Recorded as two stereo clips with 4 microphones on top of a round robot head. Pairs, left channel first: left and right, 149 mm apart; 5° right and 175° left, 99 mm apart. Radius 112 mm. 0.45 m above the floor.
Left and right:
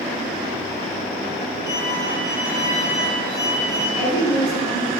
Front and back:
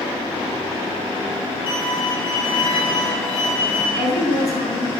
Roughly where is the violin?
Ahead left.